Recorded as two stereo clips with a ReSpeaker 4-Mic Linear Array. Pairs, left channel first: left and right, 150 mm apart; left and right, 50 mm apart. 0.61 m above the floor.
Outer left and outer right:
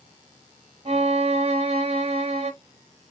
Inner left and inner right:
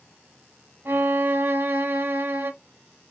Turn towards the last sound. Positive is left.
turn(degrees=-45)  # may be behind; listen again after turning